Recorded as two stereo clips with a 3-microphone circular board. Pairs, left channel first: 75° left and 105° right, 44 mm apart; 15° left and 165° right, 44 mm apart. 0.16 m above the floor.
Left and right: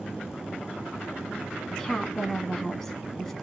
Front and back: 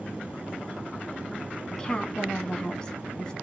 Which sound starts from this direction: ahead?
A woman speaking, at 1.7 s.